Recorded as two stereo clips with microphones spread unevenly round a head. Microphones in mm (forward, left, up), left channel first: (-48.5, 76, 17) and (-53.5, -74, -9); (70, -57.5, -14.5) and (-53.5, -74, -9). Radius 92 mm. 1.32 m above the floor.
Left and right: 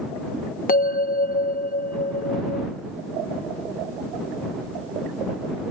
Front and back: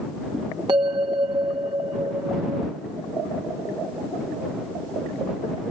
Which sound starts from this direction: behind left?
A bell, at 0.7 s.